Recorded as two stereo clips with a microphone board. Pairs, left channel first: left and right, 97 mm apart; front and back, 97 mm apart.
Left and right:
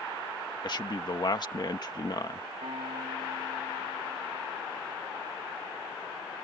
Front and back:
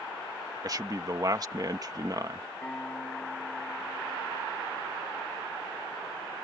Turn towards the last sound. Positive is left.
turn(degrees=-75)